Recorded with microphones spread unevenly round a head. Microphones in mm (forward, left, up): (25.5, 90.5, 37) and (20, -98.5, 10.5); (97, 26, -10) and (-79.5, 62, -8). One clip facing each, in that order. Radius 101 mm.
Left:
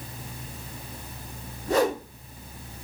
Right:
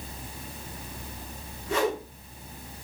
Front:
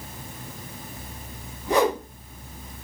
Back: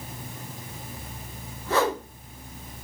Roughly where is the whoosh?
Ahead left.